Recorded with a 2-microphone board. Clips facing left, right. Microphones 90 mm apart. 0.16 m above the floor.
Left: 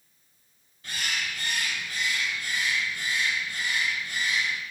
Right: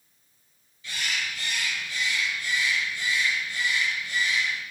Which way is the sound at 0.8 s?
55° left (ahead or behind).